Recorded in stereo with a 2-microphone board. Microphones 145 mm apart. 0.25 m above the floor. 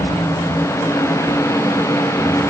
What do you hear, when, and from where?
Only background noise.